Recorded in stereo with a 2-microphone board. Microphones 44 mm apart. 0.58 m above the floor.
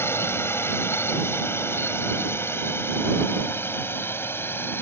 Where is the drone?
70° left (ahead or behind); by 4.8 s 60° left (ahead or behind).